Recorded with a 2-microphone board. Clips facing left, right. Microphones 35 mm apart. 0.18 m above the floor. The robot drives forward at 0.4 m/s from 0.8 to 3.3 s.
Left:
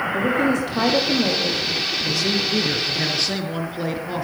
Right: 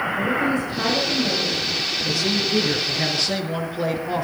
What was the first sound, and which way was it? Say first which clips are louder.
A woman speaking: left 3 dB; 70° left (ahead or behind).